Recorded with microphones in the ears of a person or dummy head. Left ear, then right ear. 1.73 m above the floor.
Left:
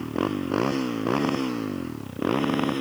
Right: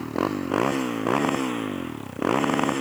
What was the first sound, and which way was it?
A motorcycle, 20° right (ahead or behind).